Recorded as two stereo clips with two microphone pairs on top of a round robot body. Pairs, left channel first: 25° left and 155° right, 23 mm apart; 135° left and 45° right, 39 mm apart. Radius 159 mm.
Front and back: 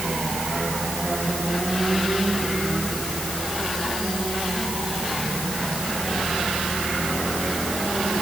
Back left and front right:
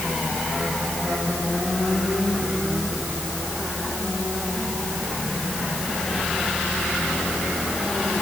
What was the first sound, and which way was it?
Only background noise.